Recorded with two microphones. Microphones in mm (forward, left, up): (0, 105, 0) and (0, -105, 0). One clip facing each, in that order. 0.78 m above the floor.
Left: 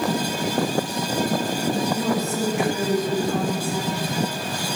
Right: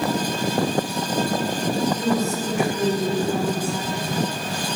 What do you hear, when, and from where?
1.9 s a woman speaking: 65° left (ahead or behind), 4.5 m